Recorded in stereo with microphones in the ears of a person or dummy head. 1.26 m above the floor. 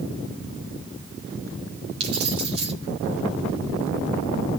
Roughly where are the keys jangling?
Right.